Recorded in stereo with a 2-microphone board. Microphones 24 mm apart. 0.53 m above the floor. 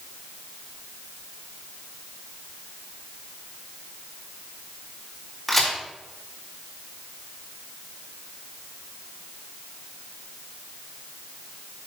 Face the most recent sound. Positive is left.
turn(degrees=10)  # may be behind; listen again after turning